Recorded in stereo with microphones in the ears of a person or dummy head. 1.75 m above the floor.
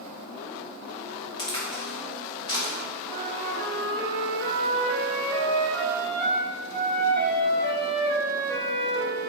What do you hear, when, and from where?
1.4 s a crack: 30° left (ahead or behind), 1.8 m
3.1 s a flute: 15° left (ahead or behind), 2.5 m